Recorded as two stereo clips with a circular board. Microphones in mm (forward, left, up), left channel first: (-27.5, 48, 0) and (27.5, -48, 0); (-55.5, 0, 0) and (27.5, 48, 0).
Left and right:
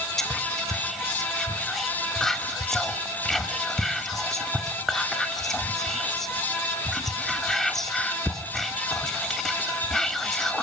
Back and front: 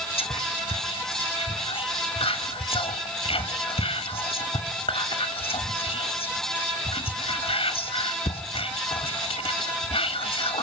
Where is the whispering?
155° right, 2.5 m.